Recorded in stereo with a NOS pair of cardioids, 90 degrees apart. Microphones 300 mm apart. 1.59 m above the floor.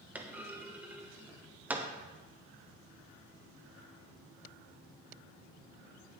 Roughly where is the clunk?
Ahead.